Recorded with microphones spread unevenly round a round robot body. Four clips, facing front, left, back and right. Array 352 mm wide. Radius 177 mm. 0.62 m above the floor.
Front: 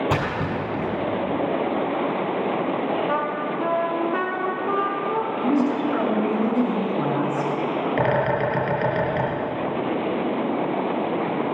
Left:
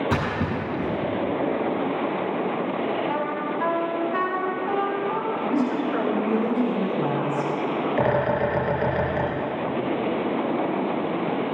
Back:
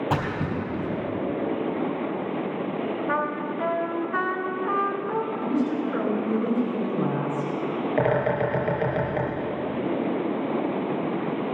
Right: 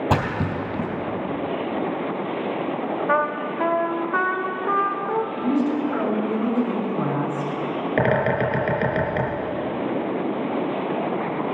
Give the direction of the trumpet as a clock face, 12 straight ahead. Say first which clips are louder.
Right 4 dB, front 2 dB; 2 o'clock.